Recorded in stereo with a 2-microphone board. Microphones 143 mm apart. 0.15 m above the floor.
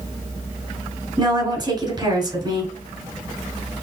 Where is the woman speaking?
30° right (ahead or behind), 1.4 m.